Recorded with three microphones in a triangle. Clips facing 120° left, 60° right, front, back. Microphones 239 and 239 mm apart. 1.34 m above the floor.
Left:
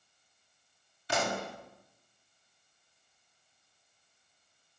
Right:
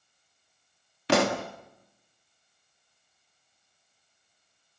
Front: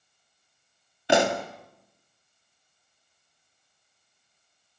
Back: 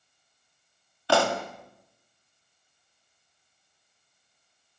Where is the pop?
70° right, 1.7 m.